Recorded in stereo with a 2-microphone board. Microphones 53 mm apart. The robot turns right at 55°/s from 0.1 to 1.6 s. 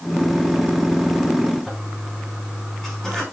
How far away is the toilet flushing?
About 4.5 m.